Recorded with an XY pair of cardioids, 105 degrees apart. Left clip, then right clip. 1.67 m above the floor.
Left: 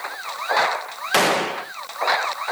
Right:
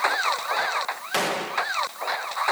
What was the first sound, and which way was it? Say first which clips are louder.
A gunshot: left 6 dB; 50° left.